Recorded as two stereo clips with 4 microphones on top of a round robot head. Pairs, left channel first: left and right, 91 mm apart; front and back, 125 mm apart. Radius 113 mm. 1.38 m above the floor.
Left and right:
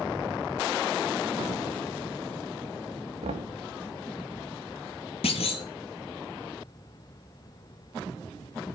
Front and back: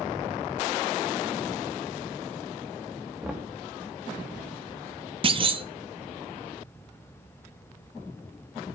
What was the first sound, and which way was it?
Knocking, 95° right.